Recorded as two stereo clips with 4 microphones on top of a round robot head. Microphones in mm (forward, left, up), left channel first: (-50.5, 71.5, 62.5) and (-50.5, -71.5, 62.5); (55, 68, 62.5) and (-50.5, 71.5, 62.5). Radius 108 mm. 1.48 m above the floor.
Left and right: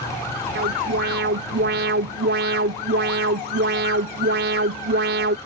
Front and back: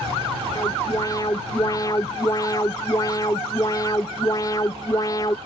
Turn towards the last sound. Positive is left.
turn(degrees=-70)